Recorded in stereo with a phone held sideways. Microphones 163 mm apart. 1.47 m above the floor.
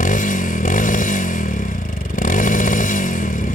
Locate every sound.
0.0 s a motorcycle: 65° left (ahead or behind)